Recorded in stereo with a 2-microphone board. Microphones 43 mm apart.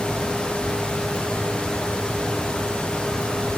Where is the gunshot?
No gunshot in this recording.